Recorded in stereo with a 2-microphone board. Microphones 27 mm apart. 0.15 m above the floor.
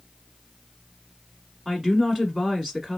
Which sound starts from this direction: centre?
A woman speaking, at 1.6 s.